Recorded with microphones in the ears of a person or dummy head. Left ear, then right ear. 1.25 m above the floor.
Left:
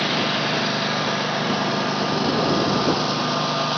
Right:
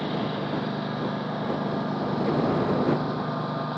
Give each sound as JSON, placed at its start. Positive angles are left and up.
{"t": 0.0, "sound": "a lawn mower", "side_deg": 65}